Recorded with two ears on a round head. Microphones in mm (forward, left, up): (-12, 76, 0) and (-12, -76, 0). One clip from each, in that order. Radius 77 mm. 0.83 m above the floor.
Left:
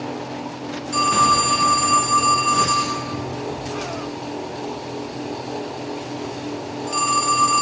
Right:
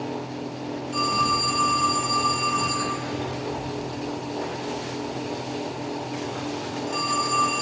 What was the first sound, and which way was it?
A phone ringing, 40° left (ahead or behind).